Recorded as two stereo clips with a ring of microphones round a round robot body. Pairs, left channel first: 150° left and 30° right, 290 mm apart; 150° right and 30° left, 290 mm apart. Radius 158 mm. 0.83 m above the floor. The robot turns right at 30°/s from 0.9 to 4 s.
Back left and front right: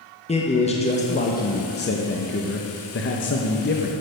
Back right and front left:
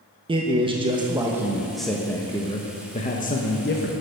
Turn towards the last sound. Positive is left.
turn(degrees=-175)